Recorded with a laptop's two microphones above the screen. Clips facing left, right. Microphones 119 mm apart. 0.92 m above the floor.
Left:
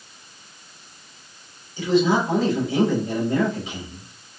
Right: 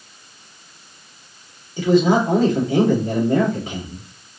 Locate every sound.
1.8 s a man speaking: 45° right (ahead or behind), 2.5 m